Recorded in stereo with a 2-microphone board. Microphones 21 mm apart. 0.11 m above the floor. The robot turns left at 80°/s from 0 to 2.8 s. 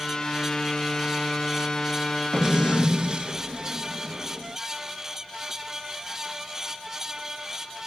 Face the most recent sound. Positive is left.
turn(degrees=-60)